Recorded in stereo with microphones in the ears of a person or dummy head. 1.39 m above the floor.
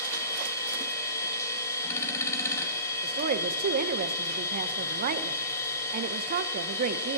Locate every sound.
0.0 s a machine running: 15° left (ahead or behind), 3 m
3.0 s a woman speaking: 45° right (ahead or behind), 0.9 m